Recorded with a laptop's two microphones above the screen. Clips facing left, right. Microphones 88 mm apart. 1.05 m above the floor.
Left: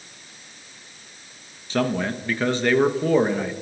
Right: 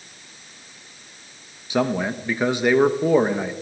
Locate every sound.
1.7 s a man speaking: 15° right (ahead or behind), 1.1 m